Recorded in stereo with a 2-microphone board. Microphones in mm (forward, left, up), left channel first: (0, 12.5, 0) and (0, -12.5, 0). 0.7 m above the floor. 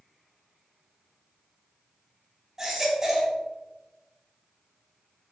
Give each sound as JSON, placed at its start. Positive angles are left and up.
{"t": 2.6, "sound": "a baby crying", "side_deg": -20, "distance_m": 4.0}